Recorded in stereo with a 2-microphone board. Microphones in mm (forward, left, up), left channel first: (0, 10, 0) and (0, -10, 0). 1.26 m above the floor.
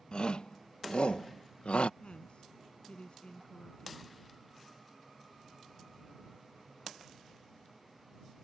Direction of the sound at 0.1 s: 50° left (ahead or behind).